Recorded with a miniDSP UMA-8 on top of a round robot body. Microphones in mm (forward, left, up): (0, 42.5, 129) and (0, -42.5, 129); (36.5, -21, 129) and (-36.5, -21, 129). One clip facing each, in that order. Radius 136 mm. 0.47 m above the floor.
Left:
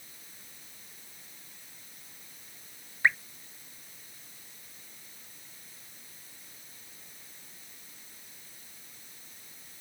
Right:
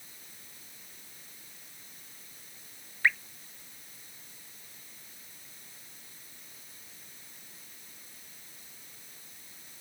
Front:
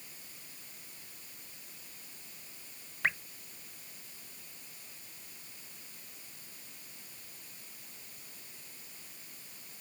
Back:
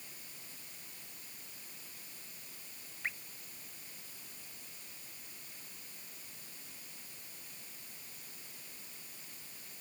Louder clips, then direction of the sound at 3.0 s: Left 1 dB, front 9 dB; 20° left.